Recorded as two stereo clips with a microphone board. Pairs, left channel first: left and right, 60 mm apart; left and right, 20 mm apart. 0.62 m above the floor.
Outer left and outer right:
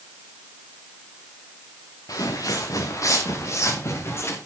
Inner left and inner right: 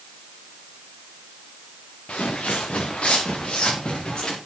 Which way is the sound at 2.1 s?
75° left (ahead or behind).